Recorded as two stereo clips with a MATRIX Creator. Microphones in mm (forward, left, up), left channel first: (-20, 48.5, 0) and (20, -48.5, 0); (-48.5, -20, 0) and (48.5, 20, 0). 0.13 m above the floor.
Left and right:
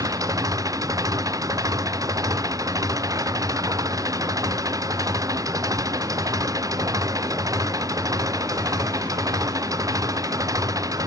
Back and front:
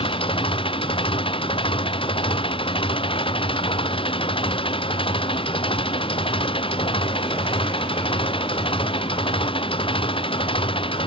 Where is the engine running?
125° right.